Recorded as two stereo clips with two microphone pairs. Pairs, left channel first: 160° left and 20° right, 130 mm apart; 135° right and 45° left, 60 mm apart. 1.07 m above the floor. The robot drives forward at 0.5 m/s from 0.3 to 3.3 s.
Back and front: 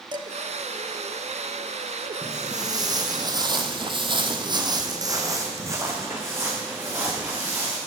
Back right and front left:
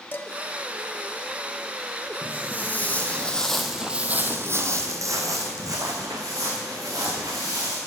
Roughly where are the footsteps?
Right.